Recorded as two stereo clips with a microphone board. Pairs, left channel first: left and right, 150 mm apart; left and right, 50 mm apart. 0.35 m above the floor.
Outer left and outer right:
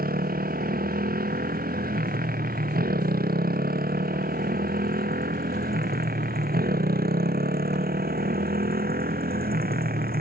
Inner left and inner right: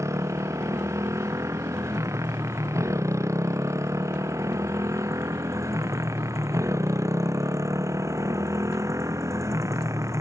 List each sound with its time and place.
0.0 s a motorcycle: 75° right (ahead or behind); by 10.2 s 85° right